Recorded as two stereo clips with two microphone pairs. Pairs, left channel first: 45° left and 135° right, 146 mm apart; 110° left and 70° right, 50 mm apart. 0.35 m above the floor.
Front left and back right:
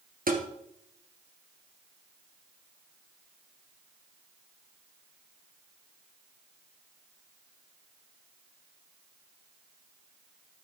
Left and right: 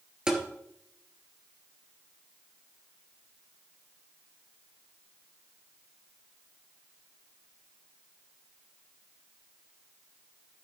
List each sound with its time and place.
0.3 s tapping: 145° right, 2 m